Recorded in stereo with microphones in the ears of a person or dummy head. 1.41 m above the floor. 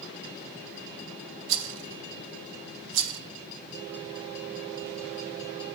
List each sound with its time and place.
1.5 s a rattle: 65° right (ahead or behind), 0.8 m